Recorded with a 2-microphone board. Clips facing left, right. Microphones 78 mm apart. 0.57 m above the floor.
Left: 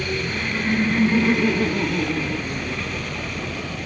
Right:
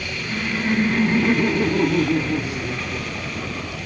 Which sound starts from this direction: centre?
Laughter, at 0.2 s.